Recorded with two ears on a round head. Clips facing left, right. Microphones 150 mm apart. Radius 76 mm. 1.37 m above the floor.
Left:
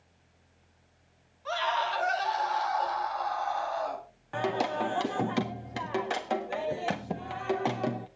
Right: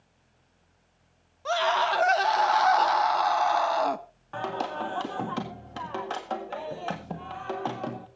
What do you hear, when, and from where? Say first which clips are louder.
1.4 s a scream: right 5 dB; 55° right (ahead or behind), 1.8 m; by 4.0 s 80° right, 1.7 m
4.3 s singing: left 2 dB; 15° left (ahead or behind), 1.7 m